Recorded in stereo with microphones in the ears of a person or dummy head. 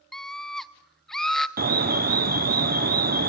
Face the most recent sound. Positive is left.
turn(degrees=-45)  # may be behind; listen again after turning